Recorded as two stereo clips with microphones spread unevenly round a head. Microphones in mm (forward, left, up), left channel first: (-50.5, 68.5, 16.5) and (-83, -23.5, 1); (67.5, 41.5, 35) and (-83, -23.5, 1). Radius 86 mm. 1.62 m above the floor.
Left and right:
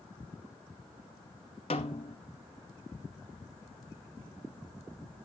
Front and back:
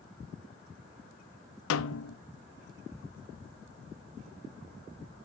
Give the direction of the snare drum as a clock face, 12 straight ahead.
12 o'clock.